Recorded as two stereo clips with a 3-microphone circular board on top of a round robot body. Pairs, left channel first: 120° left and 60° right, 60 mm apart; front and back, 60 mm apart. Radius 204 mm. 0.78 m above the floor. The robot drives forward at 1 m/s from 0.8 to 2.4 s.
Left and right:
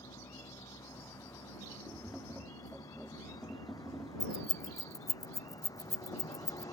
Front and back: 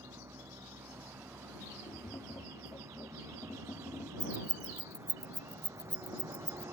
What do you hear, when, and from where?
0.0 s a vehicle: 135° left; by 6.8 s 140° left
1.9 s tapping: 20° left; by 4.1 s 25° left
4.2 s keys jangling: 105° left